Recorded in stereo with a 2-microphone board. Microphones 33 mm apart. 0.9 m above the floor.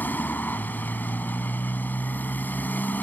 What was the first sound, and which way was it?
A motorcycle, 75° left (ahead or behind).